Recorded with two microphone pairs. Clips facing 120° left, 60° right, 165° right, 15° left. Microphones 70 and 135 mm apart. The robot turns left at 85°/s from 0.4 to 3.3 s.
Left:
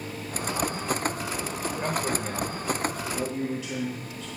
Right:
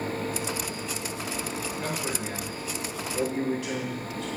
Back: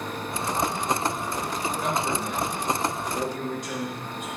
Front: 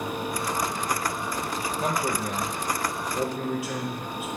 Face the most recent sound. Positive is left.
turn(degrees=-65)